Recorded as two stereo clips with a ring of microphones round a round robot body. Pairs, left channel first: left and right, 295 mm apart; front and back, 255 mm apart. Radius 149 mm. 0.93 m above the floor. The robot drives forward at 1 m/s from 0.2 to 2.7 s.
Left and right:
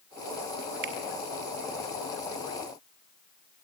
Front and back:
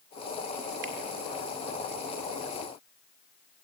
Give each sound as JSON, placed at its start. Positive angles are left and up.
{"t": 0.8, "sound": "a finger snap", "azimuth_deg": -125, "distance_m": 1.8}